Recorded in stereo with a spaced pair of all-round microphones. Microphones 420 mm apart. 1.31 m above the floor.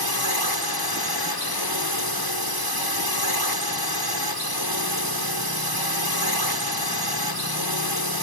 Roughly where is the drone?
Left.